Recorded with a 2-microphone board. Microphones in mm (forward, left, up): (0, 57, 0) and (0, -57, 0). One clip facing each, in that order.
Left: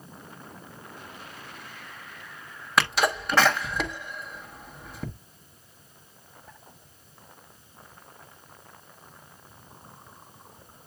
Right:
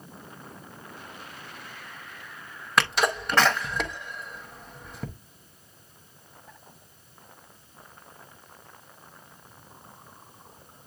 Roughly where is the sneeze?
Centre.